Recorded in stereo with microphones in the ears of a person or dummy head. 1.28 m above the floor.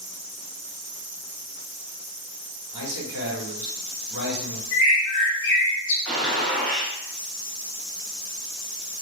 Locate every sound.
2.7 s a man speaking: 70° right (ahead or behind), 1.1 m
4.7 s a bird: 50° left (ahead or behind), 0.6 m
6.0 s a gunshot: 5° left (ahead or behind), 0.7 m